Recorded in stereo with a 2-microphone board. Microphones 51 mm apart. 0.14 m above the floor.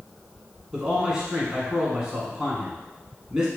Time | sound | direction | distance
0.7 | a man speaking | 15° right (ahead or behind) | 1.2 m